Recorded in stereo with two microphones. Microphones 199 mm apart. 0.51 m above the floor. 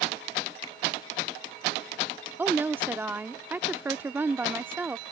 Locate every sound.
0.6 s a finger snap: 30° right (ahead or behind)
2.4 s a woman speaking: 10° right (ahead or behind)